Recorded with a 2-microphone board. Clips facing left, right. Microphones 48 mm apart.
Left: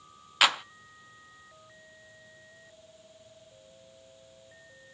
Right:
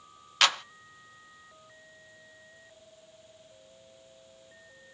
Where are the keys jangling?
No keys jangling in this recording.